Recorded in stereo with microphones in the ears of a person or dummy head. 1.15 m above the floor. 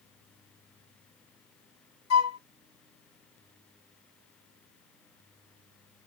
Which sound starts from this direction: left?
A flute, at 2.1 s.